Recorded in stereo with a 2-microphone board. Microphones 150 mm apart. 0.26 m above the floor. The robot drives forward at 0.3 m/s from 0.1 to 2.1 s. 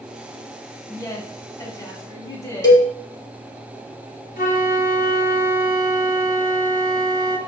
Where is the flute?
70° left (ahead or behind), 0.6 m.